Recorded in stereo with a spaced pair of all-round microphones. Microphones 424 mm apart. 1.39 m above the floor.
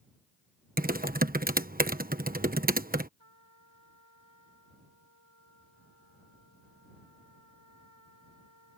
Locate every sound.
0.8 s typing on a keyboard: 20° right (ahead or behind)
3.2 s a trumpet: 80° right